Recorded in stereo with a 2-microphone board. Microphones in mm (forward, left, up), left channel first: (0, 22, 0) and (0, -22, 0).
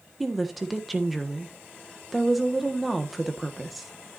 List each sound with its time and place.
0.2 s a woman speaking: centre (ahead or behind), 1.4 m